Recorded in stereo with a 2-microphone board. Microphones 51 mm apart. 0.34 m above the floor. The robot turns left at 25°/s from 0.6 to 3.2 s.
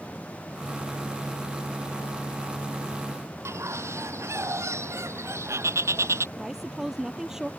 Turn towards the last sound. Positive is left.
turn(degrees=-10)  # may be behind; listen again after turning